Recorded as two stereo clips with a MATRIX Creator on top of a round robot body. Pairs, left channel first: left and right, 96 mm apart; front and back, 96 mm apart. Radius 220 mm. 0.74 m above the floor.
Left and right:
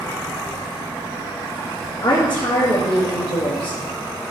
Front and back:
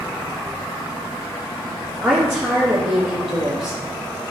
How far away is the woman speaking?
About 1.7 m.